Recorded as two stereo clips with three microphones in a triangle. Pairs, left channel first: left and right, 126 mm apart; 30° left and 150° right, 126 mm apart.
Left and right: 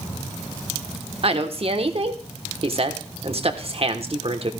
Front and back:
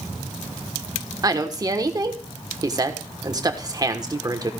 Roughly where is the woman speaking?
Right.